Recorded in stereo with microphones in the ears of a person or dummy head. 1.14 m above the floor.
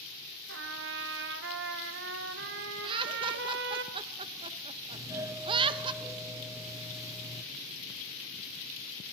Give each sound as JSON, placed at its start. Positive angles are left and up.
{"t": 0.5, "sound": "a trumpet", "side_deg": -65, "distance_m": 1.6}
{"t": 2.8, "sound": "laughter", "side_deg": -30, "distance_m": 1.3}
{"t": 4.9, "sound": "a doorbell", "side_deg": -15, "distance_m": 0.7}